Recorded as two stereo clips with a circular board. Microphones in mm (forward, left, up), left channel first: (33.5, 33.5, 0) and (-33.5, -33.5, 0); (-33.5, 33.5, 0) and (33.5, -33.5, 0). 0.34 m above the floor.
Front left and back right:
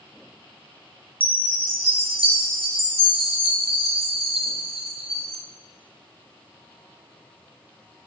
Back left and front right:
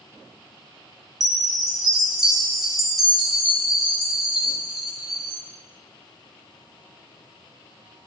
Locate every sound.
1.2 s a chime: 135° right, 2.5 m